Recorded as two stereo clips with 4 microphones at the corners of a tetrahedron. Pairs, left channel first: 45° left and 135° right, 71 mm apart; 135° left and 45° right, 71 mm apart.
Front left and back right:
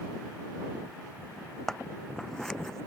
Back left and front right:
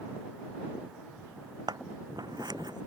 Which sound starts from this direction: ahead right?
Scissors, at 1.7 s.